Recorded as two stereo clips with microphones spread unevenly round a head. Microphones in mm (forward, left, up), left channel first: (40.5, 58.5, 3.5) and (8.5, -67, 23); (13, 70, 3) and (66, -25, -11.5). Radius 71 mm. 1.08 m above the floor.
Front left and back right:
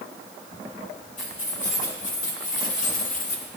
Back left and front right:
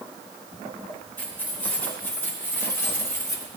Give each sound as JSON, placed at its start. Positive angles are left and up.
{"t": 1.2, "sound": "keys jangling", "azimuth_deg": 45, "distance_m": 4.0}